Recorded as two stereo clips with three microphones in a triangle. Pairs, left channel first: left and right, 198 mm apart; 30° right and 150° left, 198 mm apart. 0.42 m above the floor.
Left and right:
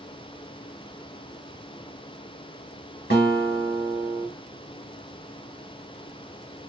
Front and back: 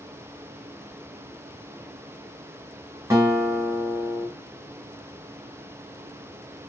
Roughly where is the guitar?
Left.